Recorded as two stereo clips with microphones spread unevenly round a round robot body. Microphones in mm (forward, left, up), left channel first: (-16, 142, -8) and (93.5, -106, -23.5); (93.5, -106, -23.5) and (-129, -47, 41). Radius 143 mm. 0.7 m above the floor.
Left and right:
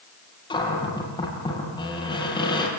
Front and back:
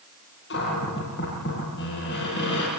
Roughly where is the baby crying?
No baby crying in this recording.